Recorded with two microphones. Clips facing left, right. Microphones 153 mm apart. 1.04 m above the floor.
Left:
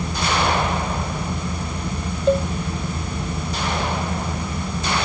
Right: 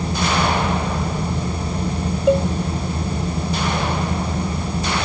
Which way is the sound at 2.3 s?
10° right (ahead or behind).